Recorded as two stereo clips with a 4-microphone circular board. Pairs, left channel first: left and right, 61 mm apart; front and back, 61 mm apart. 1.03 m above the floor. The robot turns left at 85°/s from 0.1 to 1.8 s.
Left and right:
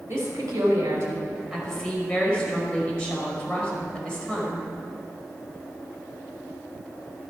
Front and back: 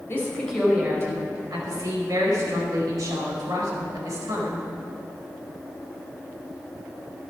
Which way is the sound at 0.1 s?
50° right.